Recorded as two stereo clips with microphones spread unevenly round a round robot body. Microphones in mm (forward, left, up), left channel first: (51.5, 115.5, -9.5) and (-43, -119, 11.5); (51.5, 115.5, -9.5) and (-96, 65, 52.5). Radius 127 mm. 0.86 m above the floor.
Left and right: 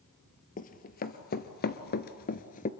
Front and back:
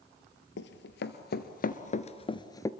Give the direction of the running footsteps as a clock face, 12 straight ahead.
12 o'clock.